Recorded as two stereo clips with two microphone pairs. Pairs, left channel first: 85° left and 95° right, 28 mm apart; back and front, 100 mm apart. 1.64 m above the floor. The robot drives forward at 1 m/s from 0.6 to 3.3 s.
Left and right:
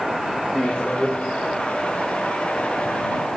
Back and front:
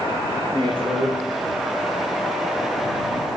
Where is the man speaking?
30° left, 2.5 m; by 1.2 s 40° left, 1.8 m.